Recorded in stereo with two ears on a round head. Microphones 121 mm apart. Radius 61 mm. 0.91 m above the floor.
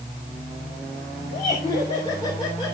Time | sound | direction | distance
1.3 | laughter | 40° left (ahead or behind) | 2.5 m